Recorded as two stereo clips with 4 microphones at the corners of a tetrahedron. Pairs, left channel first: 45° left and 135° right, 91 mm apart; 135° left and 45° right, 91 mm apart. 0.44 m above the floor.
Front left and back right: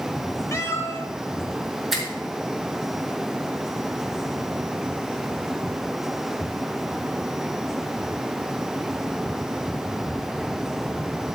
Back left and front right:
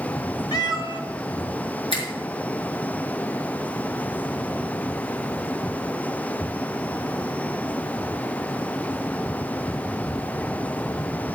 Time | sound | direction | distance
0.5 | a cat meowing | 100° left | 1.4 m
1.9 | a finger snap | 135° left | 5.5 m